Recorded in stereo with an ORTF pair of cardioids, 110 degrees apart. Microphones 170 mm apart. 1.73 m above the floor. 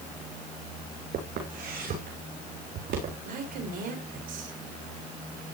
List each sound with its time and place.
1.1 s footsteps: 65° right, 7 m; by 3.1 s 80° right, 7 m
3.2 s a woman speaking: 65° right, 5.5 m